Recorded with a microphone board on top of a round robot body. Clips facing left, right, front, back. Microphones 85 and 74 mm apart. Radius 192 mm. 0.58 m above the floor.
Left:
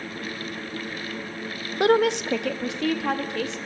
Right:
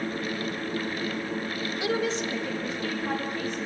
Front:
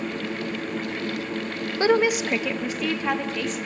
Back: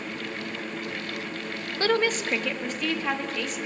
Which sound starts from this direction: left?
A woman speaking, at 1.8 s.